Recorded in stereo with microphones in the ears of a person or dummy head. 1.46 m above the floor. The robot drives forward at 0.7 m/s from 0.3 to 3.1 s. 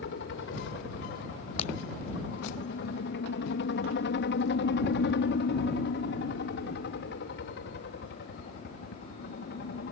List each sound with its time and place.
0.0 s a helicopter: 55° left (ahead or behind)
1.6 s breaking glass: 45° left (ahead or behind)